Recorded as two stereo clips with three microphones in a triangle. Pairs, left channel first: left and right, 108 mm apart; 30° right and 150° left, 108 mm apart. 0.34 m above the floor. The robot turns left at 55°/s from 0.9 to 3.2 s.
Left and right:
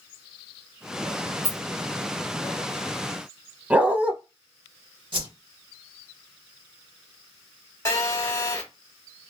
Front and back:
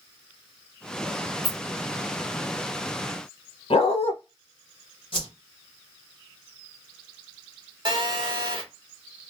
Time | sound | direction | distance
1.4 | a rattle | 100° left | 1.4 m
3.7 | a dog barking | 15° right | 0.7 m
5.1 | a whoosh | 60° right | 1.0 m
7.8 | a phone buzzing | 140° left | 0.8 m